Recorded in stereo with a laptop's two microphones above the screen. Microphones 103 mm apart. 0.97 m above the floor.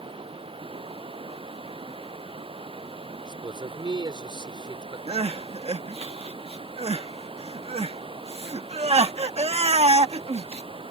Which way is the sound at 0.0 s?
60° right (ahead or behind).